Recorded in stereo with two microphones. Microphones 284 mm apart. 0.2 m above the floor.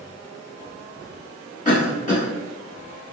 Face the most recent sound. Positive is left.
turn(degrees=25)  # may be behind; listen again after turning